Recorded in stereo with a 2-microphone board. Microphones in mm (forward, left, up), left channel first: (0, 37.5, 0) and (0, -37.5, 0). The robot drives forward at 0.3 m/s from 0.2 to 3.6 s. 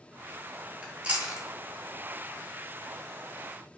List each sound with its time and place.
0.8 s chewing: 25° right (ahead or behind), 0.6 m; by 1.5 s 20° right (ahead or behind), 0.7 m